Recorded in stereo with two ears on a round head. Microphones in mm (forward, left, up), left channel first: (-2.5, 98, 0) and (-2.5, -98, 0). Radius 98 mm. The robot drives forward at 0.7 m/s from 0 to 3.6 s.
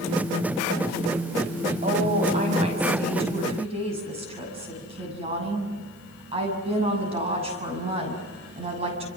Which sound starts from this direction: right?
A woman speaking, at 1.8 s.